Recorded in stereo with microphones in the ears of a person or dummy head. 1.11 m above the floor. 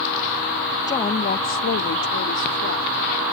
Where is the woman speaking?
15° left (ahead or behind); by 3.0 s 70° left (ahead or behind).